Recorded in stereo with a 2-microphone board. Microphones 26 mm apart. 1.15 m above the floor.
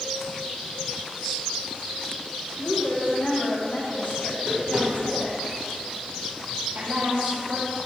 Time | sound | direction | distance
2.6 | a woman speaking | 75° left (ahead or behind) | 4.5 m
4.3 | tapping | 25° right (ahead or behind) | 5 m
6.8 | a woman speaking | 65° right (ahead or behind) | 2.5 m